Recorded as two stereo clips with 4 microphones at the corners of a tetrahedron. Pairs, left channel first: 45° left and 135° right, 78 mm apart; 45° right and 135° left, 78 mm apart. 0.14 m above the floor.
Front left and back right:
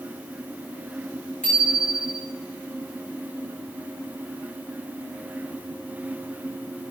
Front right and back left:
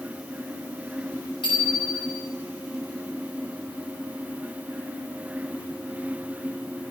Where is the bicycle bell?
25° right, 9 m.